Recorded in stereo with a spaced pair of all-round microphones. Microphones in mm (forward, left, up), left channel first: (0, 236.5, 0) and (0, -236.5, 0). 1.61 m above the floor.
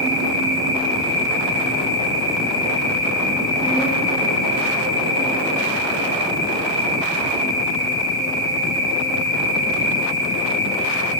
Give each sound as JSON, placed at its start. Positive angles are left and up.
{"t": 0.0, "sound": "an insect", "side_deg": 5, "distance_m": 5.5}